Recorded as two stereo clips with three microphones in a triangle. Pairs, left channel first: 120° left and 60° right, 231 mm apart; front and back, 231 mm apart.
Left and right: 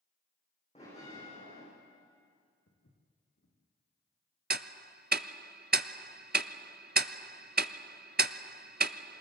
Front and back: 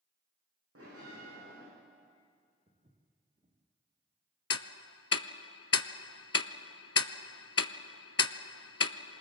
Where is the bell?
Straight behind, 9.5 m.